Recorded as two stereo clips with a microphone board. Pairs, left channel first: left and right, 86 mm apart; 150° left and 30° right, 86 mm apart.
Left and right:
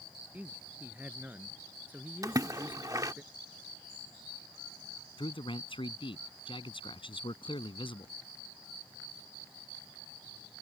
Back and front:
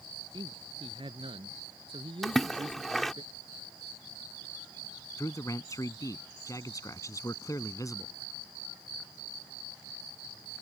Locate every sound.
0.3 s a man speaking: 20° right
2.2 s a splash: 125° right
5.2 s a man speaking: 100° left